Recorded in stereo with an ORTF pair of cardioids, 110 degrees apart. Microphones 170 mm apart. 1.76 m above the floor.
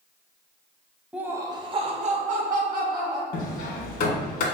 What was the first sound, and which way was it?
Laughter, 5° right.